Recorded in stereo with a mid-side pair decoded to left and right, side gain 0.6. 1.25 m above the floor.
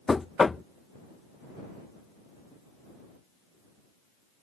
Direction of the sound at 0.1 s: 15° left.